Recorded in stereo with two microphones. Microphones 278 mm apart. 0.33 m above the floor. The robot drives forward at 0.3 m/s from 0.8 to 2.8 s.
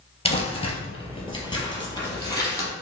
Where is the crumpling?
20° left (ahead or behind), 0.9 m; by 2.7 s 15° left (ahead or behind), 1.4 m.